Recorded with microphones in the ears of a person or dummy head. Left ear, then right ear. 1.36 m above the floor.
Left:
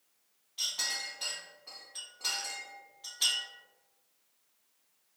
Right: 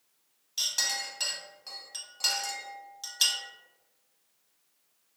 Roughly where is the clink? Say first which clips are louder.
Right 4 dB; right.